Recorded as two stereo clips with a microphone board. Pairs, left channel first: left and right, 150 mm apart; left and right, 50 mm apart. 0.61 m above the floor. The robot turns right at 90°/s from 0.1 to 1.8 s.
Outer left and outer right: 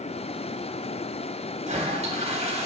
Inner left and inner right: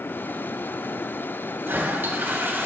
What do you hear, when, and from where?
1.6 s a toilet flushing: 50° right (ahead or behind), 1.1 m; by 2.7 s 45° right (ahead or behind), 1.1 m